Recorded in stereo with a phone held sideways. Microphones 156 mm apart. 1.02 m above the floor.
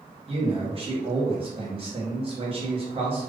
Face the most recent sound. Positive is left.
turn(degrees=-35)  # may be behind; listen again after turning